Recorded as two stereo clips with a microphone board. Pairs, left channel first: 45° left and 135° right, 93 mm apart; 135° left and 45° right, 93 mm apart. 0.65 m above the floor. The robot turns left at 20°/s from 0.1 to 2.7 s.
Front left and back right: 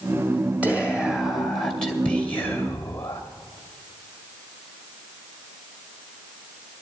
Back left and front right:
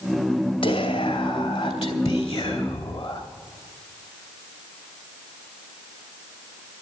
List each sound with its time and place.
0.6 s whispering: 150° left, 2.5 m; by 3.2 s 110° left, 2.5 m